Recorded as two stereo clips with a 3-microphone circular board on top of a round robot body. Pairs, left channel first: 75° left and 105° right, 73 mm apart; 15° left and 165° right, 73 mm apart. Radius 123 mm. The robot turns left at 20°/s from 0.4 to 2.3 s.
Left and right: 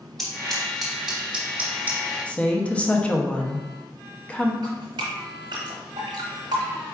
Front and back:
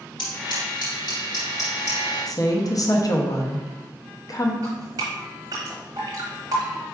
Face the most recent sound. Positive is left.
turn(degrees=-115)